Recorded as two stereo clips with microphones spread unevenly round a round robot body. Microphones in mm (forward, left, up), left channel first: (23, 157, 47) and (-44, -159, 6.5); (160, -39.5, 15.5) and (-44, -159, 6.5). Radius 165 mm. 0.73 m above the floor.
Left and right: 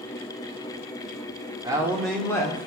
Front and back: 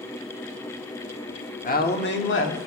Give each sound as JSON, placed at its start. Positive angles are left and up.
{"t": 1.6, "sound": "a woman speaking", "azimuth_deg": -25, "distance_m": 1.3}